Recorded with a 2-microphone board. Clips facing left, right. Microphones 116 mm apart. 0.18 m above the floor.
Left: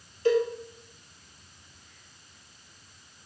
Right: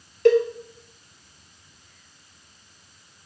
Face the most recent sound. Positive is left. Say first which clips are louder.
# right 6 dB
turn(degrees=-75)  # may be behind; listen again after turning